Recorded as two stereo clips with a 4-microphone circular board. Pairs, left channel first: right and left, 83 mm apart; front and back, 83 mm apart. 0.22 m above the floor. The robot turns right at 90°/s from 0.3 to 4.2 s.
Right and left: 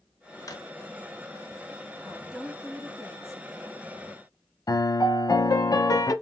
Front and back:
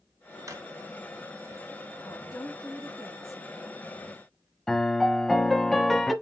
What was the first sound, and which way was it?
A drawer, 135° right.